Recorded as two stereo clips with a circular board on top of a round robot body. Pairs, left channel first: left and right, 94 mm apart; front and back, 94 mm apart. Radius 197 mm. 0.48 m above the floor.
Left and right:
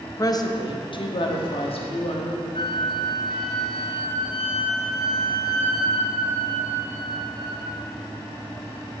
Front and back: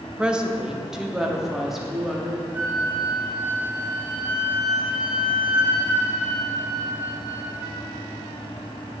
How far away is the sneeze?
I don't hear a sneeze.